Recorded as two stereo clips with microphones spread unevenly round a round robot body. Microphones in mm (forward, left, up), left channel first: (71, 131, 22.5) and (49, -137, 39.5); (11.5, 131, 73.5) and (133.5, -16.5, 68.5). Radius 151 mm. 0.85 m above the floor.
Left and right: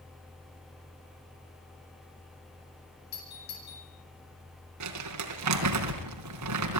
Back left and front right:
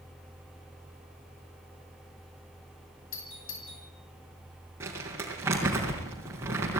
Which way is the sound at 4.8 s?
130° right.